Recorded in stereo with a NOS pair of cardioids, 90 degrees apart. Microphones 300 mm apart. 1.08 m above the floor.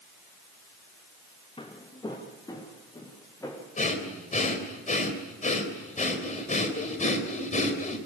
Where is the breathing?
25° left, 4 m.